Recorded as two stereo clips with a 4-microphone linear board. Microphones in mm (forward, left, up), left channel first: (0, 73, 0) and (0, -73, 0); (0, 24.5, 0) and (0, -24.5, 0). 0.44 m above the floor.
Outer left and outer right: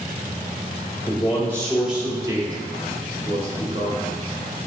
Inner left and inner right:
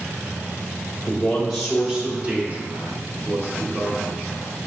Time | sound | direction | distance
1.1 | a man speaking | 25° left (ahead or behind) | 0.9 m